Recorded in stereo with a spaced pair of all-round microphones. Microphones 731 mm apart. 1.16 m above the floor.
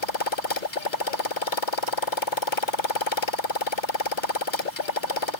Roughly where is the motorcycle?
Left.